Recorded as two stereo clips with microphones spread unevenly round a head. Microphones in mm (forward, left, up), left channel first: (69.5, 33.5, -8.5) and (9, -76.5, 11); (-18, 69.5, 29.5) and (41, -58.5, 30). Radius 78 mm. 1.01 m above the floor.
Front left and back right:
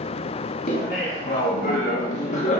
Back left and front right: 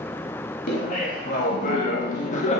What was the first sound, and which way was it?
Laughter, 90° left.